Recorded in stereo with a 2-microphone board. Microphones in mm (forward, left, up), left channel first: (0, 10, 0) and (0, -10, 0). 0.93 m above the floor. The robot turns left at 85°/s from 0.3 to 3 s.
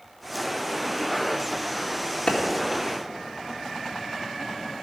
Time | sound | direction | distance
2.3 | a clap | 55° left (ahead or behind) | 2 m